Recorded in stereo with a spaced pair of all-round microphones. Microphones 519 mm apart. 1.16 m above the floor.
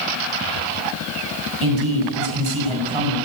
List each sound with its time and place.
1.6 s a man speaking: 65° right (ahead or behind), 9 m